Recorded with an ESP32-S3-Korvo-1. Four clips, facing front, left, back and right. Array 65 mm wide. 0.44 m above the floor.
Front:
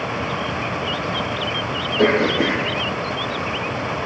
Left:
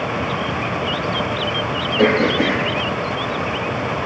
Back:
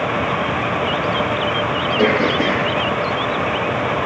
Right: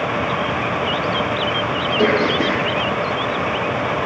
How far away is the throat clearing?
About 4.5 m.